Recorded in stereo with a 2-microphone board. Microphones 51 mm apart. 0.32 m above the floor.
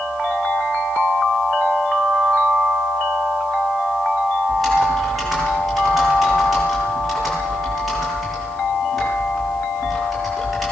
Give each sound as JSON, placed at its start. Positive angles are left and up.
{"t": 4.5, "sound": "typing on a keyboard", "side_deg": 5, "distance_m": 9.5}